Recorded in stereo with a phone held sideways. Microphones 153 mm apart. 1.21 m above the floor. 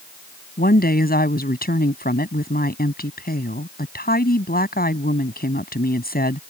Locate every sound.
0.6 s a woman speaking: 85° left